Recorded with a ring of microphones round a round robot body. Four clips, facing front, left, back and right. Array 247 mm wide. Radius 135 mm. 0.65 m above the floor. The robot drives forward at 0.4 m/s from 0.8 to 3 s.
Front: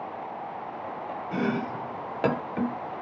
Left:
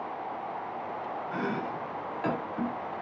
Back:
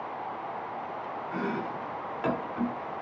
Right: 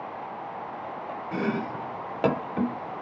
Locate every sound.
1.3 s chopping: 40° right, 1.1 m; by 3.0 s 75° right, 0.7 m